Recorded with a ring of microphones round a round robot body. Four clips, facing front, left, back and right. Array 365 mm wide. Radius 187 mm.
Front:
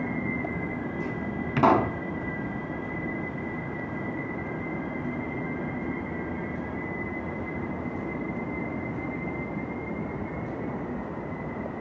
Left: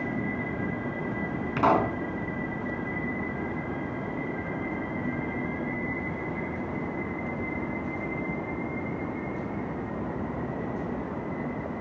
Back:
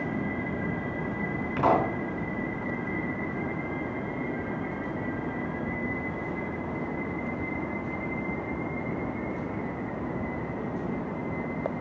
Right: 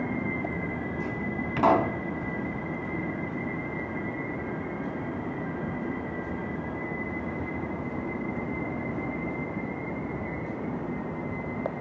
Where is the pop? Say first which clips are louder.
Right 1 dB, front 3 dB; straight ahead, 3.5 m.